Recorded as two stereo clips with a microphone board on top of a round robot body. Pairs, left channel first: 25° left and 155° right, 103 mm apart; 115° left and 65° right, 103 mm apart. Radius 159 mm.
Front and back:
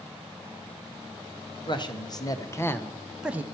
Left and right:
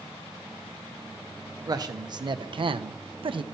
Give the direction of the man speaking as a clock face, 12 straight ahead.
1 o'clock.